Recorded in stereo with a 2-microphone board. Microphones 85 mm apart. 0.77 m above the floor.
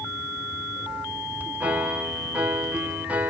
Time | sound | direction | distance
1.6 | a piano | 15° right (ahead or behind) | 0.8 m